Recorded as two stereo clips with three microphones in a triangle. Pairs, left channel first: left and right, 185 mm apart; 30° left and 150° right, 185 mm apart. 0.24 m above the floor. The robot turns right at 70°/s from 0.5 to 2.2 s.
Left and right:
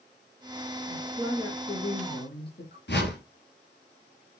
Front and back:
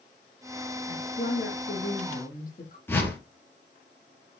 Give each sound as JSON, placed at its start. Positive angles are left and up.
{"t": 0.9, "sound": "a woman speaking", "azimuth_deg": -25, "distance_m": 4.0}
{"t": 2.9, "sound": "a whoosh", "azimuth_deg": 110, "distance_m": 3.5}